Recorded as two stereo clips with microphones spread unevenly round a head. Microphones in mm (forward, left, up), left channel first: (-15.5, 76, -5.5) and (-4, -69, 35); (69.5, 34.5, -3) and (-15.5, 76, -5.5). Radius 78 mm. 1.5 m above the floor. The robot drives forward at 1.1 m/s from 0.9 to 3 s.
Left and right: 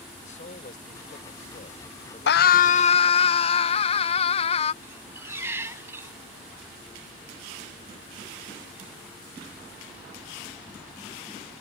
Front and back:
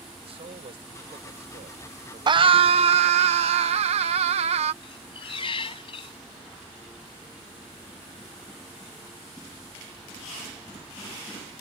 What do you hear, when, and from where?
0.2 s a man speaking: 140° left; by 3.3 s 150° left
2.3 s a scream: 110° left; by 4.7 s 145° left
4.8 s a squeak: 25° right